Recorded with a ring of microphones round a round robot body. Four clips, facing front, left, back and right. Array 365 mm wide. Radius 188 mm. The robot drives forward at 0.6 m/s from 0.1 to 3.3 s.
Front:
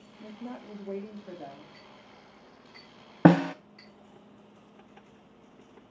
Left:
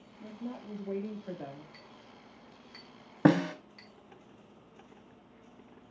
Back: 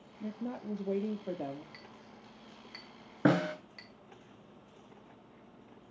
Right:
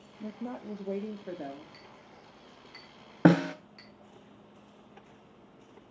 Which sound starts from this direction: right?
A woman speaking, at 0.2 s.